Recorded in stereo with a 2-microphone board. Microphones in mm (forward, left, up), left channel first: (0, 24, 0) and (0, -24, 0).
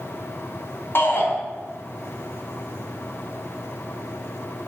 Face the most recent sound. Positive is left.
turn(degrees=50)  # may be behind; listen again after turning